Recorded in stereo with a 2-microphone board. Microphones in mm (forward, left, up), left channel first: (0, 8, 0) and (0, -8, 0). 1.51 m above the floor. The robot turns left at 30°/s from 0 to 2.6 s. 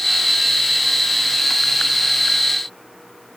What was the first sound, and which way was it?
Only background noise.